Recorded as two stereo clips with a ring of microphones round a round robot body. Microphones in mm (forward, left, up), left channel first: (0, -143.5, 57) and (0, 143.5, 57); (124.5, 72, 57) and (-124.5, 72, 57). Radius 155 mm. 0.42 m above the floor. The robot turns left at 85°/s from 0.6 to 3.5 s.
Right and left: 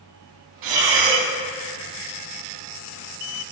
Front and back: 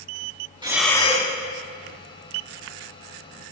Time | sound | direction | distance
0.6 | breathing | 105° left | 1.3 m